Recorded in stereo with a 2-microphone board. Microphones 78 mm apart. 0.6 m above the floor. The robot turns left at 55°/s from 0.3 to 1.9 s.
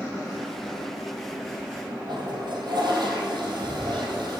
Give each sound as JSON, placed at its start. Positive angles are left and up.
{"t": 2.1, "sound": "a toilet flushing", "side_deg": -70, "distance_m": 4.0}